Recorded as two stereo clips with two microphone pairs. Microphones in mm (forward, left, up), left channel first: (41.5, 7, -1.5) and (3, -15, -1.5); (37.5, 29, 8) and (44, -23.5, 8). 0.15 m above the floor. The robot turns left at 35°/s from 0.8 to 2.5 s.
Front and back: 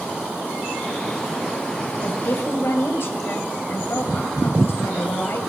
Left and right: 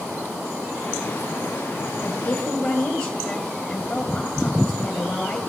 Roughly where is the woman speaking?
Ahead left.